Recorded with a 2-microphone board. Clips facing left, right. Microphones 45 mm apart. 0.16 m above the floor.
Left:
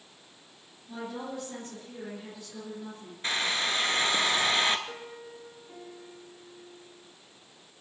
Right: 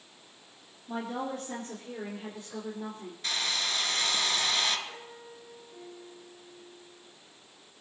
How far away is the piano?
About 4.5 m.